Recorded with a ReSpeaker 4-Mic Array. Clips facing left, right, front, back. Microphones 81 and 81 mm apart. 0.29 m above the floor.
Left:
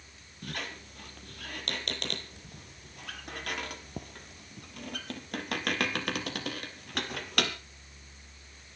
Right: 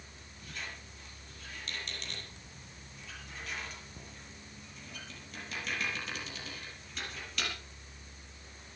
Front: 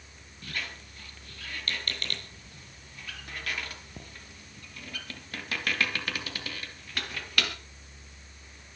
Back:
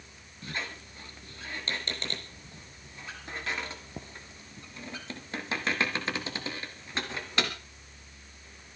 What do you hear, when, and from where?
0.4 s a squeak: 115° left, 2.5 m